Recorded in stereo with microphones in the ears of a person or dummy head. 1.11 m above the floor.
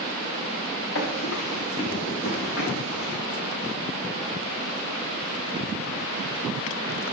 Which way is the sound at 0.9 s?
75° left (ahead or behind).